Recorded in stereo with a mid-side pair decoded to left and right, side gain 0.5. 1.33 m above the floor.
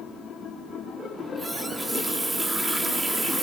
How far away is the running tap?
About 2.5 m.